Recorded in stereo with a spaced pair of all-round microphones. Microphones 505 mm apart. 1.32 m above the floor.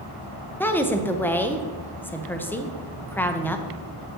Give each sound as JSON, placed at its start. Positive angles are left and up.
{"t": 0.6, "sound": "a woman speaking", "side_deg": 5, "distance_m": 0.6}